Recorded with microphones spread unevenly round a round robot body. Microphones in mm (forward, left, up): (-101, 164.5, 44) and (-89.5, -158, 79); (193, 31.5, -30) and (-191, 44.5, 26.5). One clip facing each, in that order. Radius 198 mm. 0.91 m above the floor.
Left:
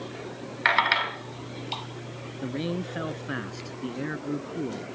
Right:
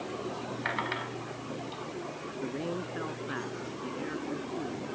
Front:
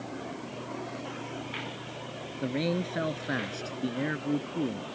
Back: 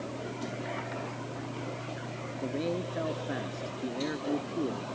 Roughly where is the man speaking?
Ahead left.